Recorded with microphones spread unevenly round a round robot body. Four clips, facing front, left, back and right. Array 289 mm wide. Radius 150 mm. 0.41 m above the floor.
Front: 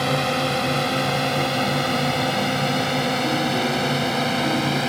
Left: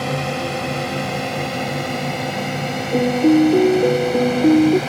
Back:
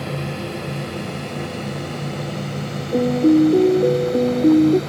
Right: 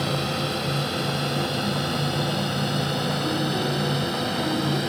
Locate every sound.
0.0 s a drone: 25° left; by 4.9 s 20° left
2.9 s a piano: 135° left